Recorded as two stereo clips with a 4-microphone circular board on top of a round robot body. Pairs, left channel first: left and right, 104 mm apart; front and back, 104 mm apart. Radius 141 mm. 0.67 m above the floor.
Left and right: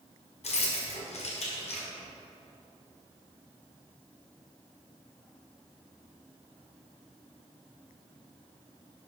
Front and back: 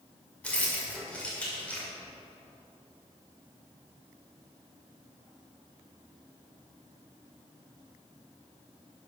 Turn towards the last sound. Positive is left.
turn(degrees=80)